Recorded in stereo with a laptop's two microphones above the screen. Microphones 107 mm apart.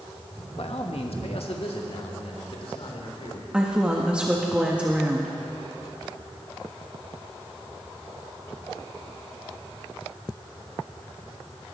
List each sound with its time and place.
0.6 s a man speaking: 70° left (ahead or behind), 1.0 m; by 3.4 s 65° left (ahead or behind), 3.5 m
3.5 s a woman speaking: 10° right (ahead or behind), 1.5 m